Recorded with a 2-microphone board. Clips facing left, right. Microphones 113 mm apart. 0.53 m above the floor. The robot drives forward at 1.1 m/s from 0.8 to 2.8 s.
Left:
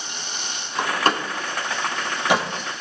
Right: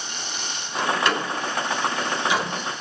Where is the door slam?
40° left (ahead or behind), 3 m; by 2.5 s 70° left (ahead or behind), 1.8 m.